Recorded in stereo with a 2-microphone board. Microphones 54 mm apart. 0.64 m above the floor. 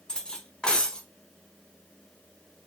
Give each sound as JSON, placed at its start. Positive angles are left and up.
{"t": 0.1, "sound": "cutlery clinking", "side_deg": 15, "distance_m": 0.8}